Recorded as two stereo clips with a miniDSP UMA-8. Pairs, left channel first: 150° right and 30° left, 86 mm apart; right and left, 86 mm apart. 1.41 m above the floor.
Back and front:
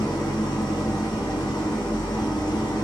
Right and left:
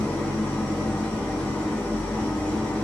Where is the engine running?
165° right, 0.8 m.